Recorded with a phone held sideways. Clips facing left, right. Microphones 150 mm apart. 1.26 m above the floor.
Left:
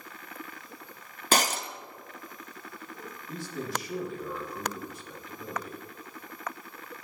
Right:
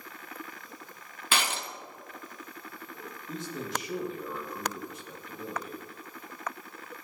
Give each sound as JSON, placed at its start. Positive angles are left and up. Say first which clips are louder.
{"t": 1.3, "sound": "breaking glass", "louder": "left 5 dB", "side_deg": 40, "distance_m": 0.7}
{"t": 3.3, "sound": "a man speaking", "louder": "left 1 dB", "side_deg": -20, "distance_m": 2.0}